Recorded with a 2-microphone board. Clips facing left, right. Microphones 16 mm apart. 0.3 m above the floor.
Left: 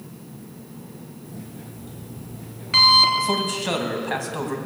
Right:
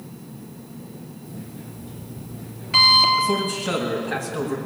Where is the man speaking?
35° left (ahead or behind), 2.5 m.